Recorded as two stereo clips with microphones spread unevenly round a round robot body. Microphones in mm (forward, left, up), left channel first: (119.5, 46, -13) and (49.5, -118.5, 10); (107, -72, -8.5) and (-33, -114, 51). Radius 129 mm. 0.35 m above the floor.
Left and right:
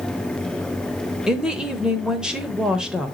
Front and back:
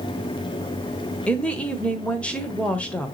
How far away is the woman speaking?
About 0.9 m.